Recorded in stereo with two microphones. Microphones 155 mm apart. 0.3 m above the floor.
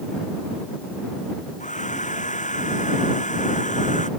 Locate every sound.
1.6 s a hair dryer: 55° left (ahead or behind)